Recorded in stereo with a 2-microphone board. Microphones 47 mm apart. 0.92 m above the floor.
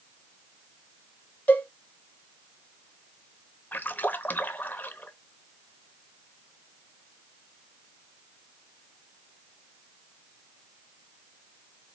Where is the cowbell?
35° left (ahead or behind), 1.1 m.